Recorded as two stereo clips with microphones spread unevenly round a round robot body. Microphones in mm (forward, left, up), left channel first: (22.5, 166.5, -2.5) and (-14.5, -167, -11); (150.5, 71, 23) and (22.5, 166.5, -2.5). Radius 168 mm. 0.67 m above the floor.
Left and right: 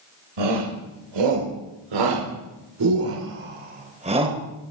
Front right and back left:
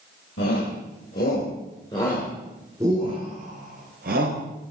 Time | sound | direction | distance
0.4 | a shout | 80° right | 3 m